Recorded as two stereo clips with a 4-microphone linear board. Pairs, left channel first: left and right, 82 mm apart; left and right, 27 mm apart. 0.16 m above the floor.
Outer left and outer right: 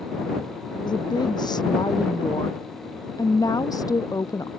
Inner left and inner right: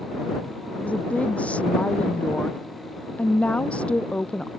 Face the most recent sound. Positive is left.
turn(degrees=45)  # may be behind; listen again after turning